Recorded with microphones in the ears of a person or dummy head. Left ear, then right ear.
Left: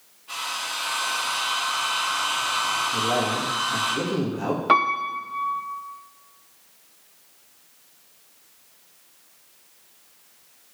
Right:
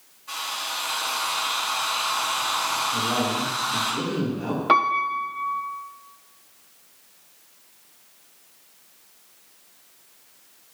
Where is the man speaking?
45° left (ahead or behind), 2 m.